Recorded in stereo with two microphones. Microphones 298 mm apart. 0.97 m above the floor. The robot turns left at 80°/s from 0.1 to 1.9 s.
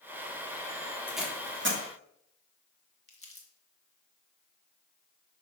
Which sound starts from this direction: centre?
Tape being pulled, at 1.1 s.